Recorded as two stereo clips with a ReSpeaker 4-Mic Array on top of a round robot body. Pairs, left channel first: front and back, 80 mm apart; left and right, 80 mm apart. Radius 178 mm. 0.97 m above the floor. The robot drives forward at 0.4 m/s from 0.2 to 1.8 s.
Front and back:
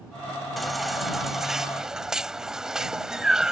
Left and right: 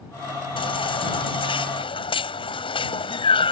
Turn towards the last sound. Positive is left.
turn(degrees=95)